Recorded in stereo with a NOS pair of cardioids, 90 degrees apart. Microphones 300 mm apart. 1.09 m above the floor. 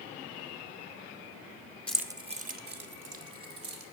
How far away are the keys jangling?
About 0.8 m.